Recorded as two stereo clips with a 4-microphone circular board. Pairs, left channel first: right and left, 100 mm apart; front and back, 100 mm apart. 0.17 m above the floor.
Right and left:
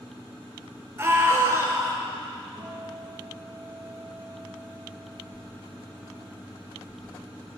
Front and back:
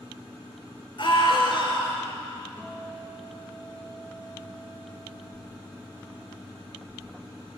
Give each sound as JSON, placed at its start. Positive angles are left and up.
{"t": 1.0, "sound": "a scream", "azimuth_deg": 30, "distance_m": 2.5}
{"t": 2.6, "sound": "a guitar", "azimuth_deg": 110, "distance_m": 5.5}